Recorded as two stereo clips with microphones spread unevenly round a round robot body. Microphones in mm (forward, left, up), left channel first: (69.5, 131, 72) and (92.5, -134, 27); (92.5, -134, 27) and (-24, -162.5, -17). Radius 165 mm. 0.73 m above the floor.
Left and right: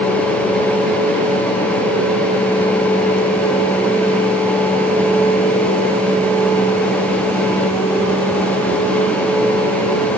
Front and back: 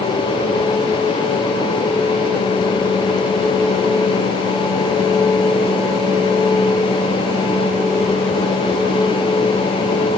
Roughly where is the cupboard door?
No cupboard door in this recording.